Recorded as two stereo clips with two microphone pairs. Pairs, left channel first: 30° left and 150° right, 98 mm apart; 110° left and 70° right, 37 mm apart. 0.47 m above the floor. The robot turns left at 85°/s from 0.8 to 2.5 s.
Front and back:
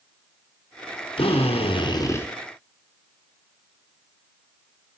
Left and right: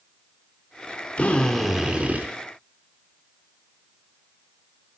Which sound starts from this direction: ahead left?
A drill, at 1.2 s.